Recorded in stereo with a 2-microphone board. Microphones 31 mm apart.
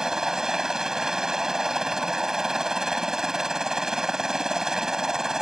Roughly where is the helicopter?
Centre.